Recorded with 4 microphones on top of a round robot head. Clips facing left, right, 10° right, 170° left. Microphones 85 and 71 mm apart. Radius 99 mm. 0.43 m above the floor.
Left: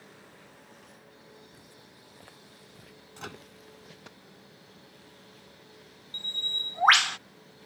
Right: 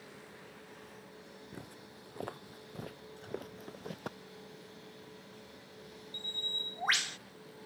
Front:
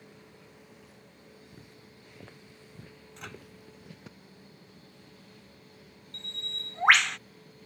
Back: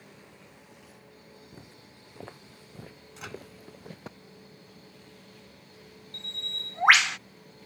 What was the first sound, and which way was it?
Footsteps, 125° right.